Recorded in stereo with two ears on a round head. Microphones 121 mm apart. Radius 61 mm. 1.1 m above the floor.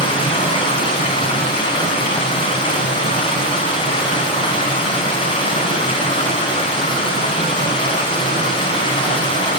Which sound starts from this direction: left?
Running water, at 0.0 s.